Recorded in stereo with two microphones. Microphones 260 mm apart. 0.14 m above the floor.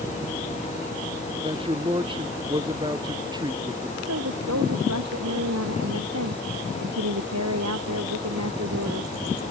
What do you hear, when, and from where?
1.4 s a man speaking: 20° right (ahead or behind); by 4.0 s 15° right (ahead or behind)
4.1 s a woman speaking: 85° right